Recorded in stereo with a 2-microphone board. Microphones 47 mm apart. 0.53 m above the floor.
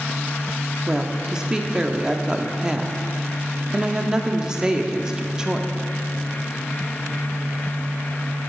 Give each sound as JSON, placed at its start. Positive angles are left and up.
{"t": 0.9, "sound": "a woman speaking", "side_deg": -15, "distance_m": 0.6}